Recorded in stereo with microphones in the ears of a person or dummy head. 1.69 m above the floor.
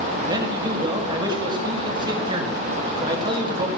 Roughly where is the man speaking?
Right.